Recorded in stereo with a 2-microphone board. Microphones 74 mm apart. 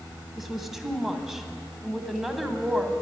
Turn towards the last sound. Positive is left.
turn(degrees=-5)  # may be behind; listen again after turning